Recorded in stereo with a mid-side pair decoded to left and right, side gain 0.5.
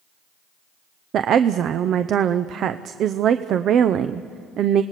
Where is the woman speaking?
60° right, 0.6 m.